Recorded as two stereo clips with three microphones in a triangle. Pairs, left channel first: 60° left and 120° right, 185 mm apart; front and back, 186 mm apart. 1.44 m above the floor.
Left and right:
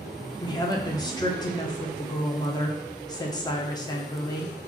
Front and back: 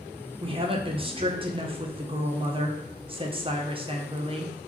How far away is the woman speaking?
About 0.6 m.